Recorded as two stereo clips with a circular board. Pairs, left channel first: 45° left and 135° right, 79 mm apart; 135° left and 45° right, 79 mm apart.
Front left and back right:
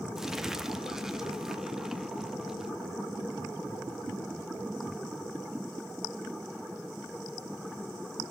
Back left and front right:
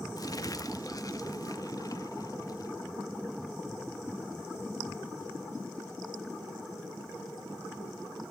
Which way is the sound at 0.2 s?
145° left.